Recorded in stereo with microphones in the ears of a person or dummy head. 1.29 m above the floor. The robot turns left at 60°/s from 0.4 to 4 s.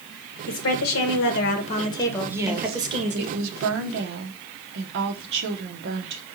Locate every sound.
0.5 s a woman speaking: 115° left, 1.0 m; by 3.3 s 55° right, 1.0 m
2.3 s a woman speaking: 10° right, 0.9 m; by 6.2 s 115° right, 0.9 m